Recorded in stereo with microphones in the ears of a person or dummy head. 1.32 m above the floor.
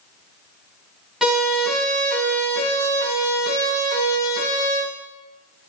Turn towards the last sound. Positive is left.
turn(degrees=35)  # may be behind; listen again after turning